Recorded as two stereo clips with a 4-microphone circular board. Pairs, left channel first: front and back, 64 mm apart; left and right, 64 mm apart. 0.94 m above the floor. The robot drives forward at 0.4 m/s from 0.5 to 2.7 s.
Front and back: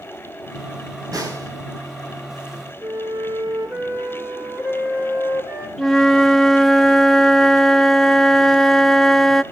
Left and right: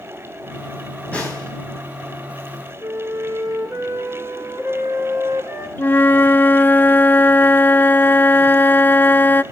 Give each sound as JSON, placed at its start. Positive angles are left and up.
{"t": 1.1, "sound": "a snare drum", "azimuth_deg": 160, "distance_m": 4.0}
{"t": 2.8, "sound": "a flute", "azimuth_deg": -145, "distance_m": 9.0}
{"t": 5.8, "sound": "a flute", "azimuth_deg": 85, "distance_m": 0.6}